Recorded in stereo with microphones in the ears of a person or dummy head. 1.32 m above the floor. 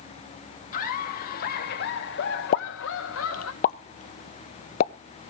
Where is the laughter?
50° left (ahead or behind), 2 m; by 3.5 s 75° left (ahead or behind), 1.5 m.